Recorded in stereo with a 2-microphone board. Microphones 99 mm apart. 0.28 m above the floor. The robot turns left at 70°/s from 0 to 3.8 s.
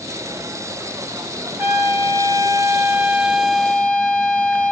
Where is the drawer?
No drawer in this recording.